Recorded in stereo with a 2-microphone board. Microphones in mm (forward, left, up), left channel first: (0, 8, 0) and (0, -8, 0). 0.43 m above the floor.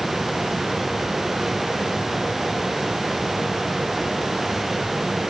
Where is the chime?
I don't hear a chime.